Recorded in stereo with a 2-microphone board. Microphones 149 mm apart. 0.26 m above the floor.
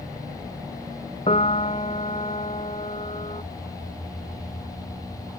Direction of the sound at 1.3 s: 45° left (ahead or behind).